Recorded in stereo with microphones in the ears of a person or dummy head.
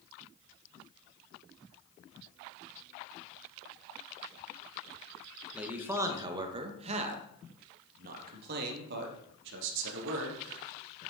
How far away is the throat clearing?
No throat clearing in this recording.